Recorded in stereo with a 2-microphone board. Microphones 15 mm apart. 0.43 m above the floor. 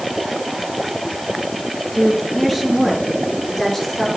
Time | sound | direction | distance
1.9 | a woman speaking | centre (ahead or behind) | 6.5 m